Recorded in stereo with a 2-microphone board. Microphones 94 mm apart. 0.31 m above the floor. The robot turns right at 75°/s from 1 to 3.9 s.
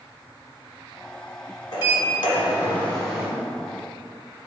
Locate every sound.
1.7 s a sliding door: 80° left, 1.1 m; by 3.3 s 165° right, 1.1 m